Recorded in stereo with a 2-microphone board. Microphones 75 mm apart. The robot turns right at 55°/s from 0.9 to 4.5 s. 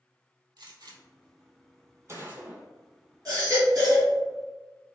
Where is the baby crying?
105° right, 1.9 m; by 4.1 s 55° right, 1.9 m.